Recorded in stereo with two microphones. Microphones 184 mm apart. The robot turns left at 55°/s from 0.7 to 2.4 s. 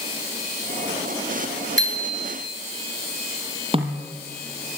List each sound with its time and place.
1.8 s a bicycle bell: 90° left, 6.5 m; by 2.4 s 60° left, 6.5 m
3.7 s a snare drum: 30° right (ahead or behind), 4 m